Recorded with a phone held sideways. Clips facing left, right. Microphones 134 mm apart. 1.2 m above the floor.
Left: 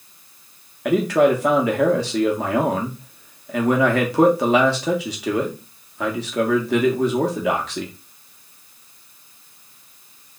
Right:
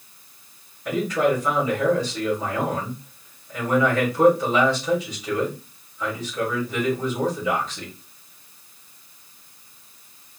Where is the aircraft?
I don't hear an aircraft.